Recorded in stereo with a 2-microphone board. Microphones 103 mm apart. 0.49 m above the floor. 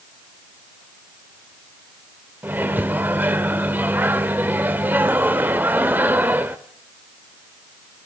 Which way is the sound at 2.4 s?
20° right (ahead or behind).